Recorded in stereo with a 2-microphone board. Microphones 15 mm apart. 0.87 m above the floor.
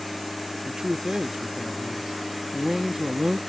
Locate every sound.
0.7 s a man speaking: 50° right (ahead or behind)